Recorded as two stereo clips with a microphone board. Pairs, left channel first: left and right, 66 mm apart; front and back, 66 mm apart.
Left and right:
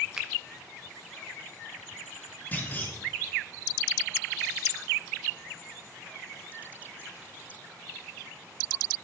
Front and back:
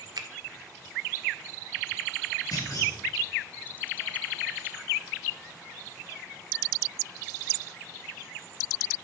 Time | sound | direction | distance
0.2 | a finger snap | 170° right | 0.9 m
2.5 | a clunk | 25° left | 2.0 m